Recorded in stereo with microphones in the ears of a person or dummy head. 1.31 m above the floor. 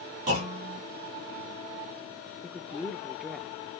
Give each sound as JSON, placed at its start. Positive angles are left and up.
{"t": 0.3, "sound": "a clunk", "side_deg": -40, "distance_m": 2.5}
{"t": 2.4, "sound": "a woman speaking", "side_deg": -5, "distance_m": 0.6}